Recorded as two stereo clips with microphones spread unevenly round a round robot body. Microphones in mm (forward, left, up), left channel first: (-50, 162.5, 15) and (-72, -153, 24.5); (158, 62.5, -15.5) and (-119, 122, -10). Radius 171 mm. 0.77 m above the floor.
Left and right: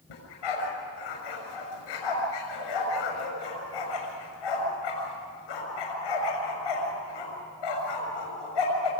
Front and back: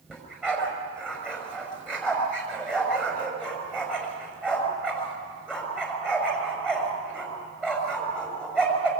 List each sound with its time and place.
0.1 s a dog barking: 75° left, 6 m